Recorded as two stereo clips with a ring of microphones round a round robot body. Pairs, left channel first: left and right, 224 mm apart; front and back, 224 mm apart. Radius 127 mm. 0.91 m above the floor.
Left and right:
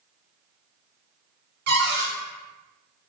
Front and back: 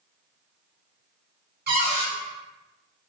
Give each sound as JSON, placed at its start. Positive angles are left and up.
{"t": 1.7, "sound": "a cupboard door", "azimuth_deg": -135, "distance_m": 1.4}